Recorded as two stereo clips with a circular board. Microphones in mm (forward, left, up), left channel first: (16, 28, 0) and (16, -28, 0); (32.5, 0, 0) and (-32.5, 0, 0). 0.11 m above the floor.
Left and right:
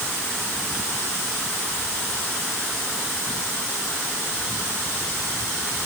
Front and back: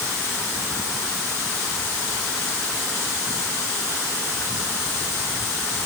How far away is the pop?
No pop in this recording.